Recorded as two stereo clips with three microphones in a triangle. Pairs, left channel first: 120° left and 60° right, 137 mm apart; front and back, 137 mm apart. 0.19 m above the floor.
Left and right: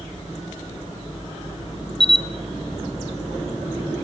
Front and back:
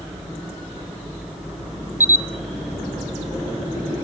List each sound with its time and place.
2.0 s a camera shutter: 110° left, 1.6 m